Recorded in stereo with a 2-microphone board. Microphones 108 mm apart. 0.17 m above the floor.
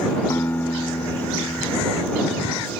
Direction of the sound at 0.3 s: 30° left (ahead or behind).